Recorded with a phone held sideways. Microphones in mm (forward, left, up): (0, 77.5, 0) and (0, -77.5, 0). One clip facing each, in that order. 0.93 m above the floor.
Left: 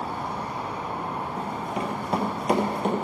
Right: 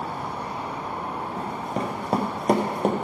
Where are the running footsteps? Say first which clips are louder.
Right 2 dB; 40° right (ahead or behind), 1.3 m; by 2.9 s 45° right (ahead or behind), 1.3 m.